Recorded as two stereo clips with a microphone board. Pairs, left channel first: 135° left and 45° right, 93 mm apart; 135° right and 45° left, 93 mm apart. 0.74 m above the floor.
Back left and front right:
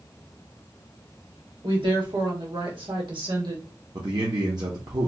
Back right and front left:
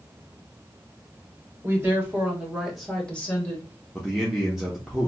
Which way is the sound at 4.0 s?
40° right.